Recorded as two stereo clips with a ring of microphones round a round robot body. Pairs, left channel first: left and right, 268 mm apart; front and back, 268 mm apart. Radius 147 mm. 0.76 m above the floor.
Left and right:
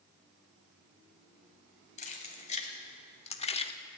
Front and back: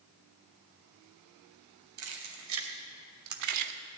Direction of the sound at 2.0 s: 155° left.